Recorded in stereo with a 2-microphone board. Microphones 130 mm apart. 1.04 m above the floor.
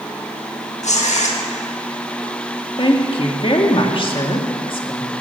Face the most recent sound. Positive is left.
turn(degrees=40)  # may be behind; listen again after turning